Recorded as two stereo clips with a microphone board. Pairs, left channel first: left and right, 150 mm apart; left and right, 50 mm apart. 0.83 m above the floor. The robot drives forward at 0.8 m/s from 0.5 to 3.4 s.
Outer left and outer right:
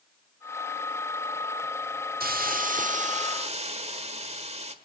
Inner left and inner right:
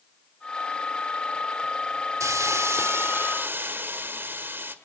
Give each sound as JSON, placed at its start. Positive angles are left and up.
{"t": 2.2, "sound": "a hiss", "side_deg": -85, "distance_m": 1.1}